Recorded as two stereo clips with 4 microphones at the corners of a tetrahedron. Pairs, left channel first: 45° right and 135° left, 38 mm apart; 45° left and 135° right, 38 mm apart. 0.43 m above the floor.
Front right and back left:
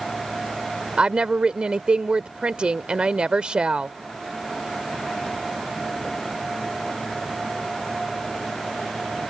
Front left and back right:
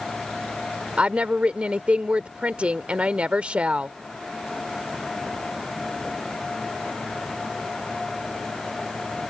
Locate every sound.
1.0 s a woman speaking: 175° right